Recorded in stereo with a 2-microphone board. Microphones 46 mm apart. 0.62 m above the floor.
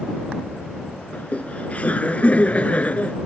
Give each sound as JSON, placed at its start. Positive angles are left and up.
{"t": 1.1, "sound": "laughter", "side_deg": 30}